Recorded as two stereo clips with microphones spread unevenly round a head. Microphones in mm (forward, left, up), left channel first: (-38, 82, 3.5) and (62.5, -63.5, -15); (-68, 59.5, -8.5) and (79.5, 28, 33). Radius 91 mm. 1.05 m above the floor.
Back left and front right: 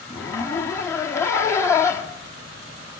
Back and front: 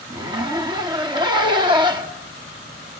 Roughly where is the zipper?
Ahead left.